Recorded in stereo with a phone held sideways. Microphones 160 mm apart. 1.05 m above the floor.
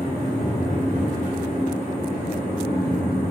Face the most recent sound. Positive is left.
turn(degrees=-45)  # may be behind; listen again after turning